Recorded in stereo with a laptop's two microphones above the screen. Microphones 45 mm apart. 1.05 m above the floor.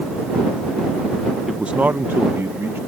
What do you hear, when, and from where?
1.5 s a man speaking: 10° right (ahead or behind); by 2.8 s 70° right (ahead or behind)